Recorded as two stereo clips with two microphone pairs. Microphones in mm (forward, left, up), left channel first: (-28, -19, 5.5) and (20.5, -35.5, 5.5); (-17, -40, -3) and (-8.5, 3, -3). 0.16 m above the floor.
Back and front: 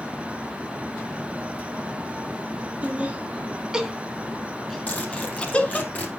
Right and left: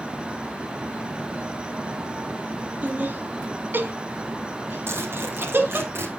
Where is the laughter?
35° left, 2 m; by 5.9 s 105° left, 2 m.